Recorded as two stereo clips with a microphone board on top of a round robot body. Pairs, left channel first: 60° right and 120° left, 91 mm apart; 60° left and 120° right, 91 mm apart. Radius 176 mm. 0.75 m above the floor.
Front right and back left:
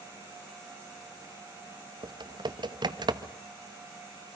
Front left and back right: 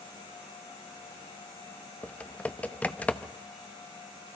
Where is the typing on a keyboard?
135° left, 1.4 m.